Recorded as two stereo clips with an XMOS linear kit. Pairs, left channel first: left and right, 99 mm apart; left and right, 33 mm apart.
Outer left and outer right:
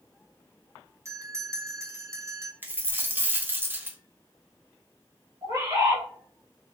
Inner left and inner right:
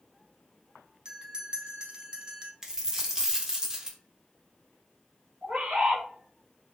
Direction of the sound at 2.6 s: 20° right (ahead or behind).